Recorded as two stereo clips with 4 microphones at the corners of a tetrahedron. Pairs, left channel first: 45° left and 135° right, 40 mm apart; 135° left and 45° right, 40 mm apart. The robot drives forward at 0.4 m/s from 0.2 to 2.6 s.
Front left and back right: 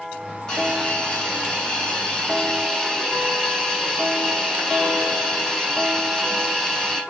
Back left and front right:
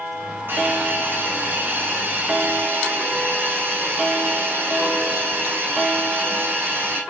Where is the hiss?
30° right, 4 m; by 7.0 s 35° right, 3.5 m.